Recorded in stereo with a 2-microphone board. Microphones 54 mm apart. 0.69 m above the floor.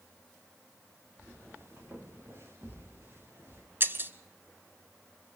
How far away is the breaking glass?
About 1.1 m.